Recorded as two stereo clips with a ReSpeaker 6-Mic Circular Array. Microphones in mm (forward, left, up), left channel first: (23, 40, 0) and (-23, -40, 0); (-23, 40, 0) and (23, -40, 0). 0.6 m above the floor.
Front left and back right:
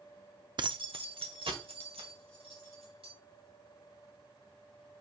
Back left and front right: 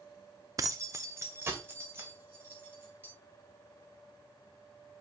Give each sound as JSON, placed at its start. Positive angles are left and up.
{"t": 0.6, "sound": "keys jangling", "azimuth_deg": -100, "distance_m": 0.5}